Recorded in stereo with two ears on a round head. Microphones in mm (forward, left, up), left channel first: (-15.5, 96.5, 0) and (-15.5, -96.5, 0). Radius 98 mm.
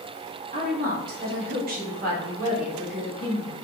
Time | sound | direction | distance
0.5 | a woman speaking | 40° right (ahead or behind) | 0.9 m